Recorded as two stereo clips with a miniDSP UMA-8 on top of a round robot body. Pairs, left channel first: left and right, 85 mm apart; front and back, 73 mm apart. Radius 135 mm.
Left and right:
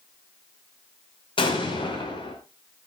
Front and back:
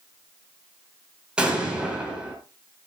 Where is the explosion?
100° left, 5.5 m.